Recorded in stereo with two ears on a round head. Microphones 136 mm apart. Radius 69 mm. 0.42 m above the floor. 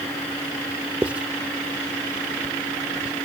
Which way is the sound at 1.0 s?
10° right (ahead or behind).